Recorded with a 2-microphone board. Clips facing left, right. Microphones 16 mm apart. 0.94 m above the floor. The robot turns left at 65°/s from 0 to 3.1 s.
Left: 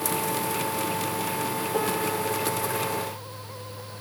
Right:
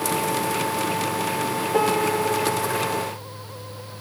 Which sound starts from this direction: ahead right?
A piano, at 1.7 s.